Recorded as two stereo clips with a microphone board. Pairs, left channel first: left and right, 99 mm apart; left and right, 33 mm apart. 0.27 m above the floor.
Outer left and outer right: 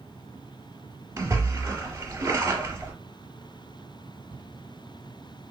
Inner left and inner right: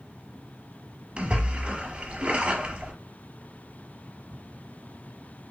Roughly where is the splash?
Right.